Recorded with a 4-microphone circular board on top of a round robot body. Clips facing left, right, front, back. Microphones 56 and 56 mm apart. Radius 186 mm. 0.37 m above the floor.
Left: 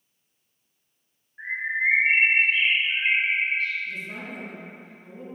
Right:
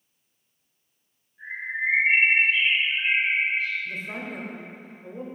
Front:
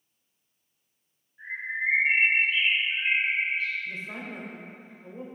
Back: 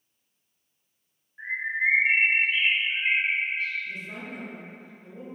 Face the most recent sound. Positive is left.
turn(degrees=-55)